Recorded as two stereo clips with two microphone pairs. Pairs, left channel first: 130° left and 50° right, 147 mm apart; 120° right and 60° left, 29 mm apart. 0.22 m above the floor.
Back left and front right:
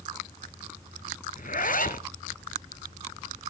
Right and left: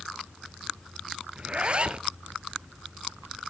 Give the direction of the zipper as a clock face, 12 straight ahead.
8 o'clock.